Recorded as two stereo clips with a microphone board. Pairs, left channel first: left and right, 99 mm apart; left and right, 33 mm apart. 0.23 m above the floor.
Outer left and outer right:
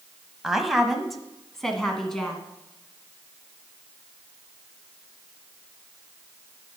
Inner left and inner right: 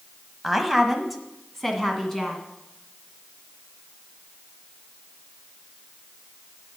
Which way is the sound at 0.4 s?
5° right (ahead or behind).